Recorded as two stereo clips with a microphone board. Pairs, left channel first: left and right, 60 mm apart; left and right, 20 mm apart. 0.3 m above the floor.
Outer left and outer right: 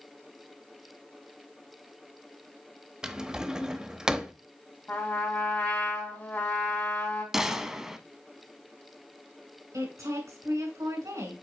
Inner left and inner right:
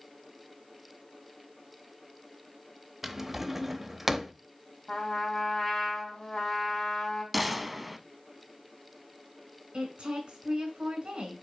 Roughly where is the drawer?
Centre.